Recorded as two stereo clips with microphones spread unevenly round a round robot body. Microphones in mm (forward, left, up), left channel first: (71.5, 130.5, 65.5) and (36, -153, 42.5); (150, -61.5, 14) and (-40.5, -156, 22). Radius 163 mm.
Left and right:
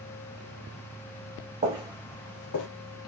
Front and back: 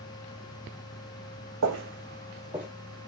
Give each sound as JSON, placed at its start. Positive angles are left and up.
{"t": 1.6, "sound": "footsteps", "azimuth_deg": -165, "distance_m": 0.9}